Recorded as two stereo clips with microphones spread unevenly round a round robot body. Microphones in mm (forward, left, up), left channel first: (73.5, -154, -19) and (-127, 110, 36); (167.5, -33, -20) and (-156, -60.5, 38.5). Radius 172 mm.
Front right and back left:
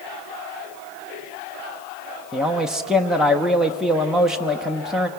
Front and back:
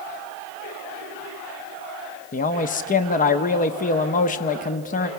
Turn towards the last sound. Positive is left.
turn(degrees=25)